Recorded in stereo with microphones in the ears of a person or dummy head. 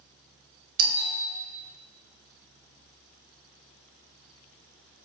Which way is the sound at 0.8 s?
50° right (ahead or behind).